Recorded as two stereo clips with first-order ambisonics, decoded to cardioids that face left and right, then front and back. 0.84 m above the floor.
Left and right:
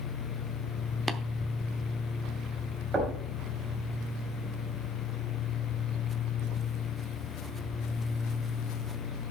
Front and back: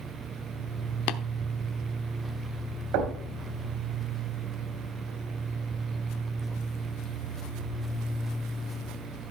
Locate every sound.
1.1 s tapping: straight ahead, 0.7 m
2.9 s knocking: 160° right, 3.5 m